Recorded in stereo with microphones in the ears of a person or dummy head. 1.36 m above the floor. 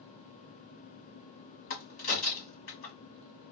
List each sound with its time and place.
1.7 s a crack: 45° left (ahead or behind), 1.3 m